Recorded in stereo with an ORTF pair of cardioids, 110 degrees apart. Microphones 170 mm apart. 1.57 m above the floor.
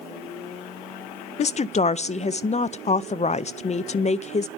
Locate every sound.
1.4 s a woman speaking: 45° left, 0.5 m